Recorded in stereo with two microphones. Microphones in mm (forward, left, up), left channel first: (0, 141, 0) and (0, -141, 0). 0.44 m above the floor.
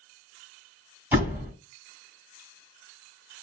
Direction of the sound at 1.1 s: 5° right (ahead or behind).